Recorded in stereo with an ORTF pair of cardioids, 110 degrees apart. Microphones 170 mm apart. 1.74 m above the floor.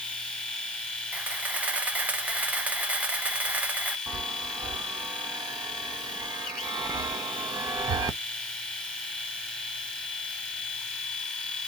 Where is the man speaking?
I don't hear a man speaking.